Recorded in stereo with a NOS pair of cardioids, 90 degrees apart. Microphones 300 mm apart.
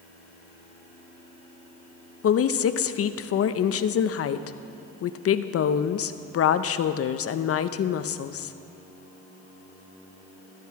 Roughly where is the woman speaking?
Ahead left.